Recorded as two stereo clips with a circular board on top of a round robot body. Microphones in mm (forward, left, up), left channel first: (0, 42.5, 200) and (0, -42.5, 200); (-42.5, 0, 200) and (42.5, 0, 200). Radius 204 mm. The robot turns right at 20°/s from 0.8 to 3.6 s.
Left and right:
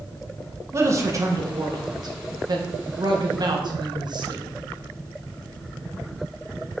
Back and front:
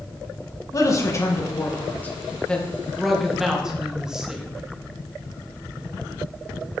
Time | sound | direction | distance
0.7 | a man speaking | 140° right | 1.7 m